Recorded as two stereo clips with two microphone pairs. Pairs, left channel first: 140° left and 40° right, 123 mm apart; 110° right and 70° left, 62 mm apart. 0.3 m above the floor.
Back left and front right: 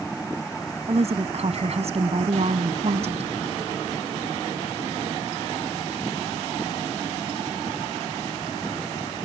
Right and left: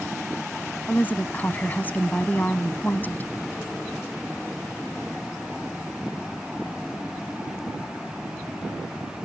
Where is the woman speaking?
50° right.